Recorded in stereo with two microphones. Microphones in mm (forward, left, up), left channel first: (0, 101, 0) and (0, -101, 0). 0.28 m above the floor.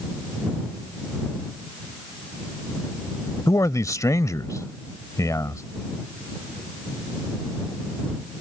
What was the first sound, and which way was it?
A man speaking, 15° left (ahead or behind).